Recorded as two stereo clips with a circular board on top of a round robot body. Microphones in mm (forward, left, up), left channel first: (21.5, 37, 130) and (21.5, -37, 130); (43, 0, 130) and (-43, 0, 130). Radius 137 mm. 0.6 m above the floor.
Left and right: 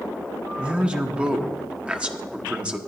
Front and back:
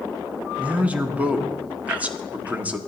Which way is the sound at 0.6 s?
135° right.